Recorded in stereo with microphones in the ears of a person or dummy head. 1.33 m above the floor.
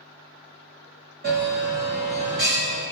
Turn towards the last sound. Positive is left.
turn(degrees=-40)  # may be behind; listen again after turning